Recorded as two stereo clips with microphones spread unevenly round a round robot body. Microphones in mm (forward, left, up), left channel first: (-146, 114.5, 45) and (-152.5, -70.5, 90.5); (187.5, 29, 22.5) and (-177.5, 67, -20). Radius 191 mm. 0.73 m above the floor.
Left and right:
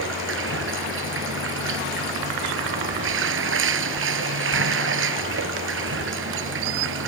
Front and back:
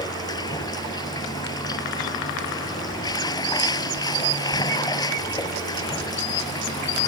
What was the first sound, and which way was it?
Running water, 85° right.